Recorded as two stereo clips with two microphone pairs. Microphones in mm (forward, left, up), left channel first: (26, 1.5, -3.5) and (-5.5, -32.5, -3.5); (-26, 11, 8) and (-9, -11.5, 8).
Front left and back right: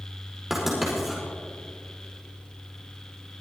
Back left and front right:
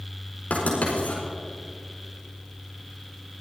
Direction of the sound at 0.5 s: 140° left.